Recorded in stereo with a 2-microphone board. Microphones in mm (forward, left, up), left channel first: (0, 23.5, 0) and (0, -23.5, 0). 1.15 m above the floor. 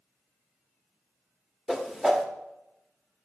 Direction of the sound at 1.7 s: 10° right (ahead or behind).